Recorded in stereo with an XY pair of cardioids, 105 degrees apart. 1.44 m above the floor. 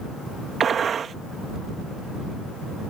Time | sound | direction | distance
0.6 | a gunshot | 50° right | ?